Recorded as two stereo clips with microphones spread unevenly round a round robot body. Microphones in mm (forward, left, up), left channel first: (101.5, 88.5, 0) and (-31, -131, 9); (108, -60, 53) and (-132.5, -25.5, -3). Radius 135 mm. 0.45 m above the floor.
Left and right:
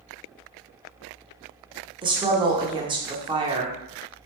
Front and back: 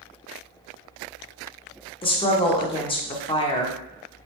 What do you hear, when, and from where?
2.0 s a woman speaking: 80° right, 0.7 m